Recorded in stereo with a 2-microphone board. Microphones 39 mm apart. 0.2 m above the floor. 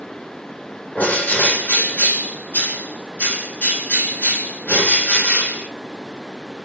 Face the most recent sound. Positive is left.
turn(degrees=45)  # may be behind; listen again after turning